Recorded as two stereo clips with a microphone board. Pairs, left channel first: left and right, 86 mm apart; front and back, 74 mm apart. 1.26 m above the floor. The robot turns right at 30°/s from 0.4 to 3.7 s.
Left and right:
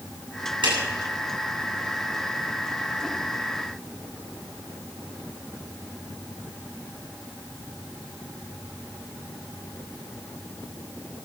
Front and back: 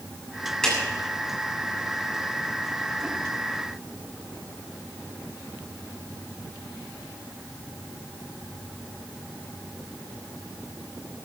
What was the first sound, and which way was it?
A clap, 80° right.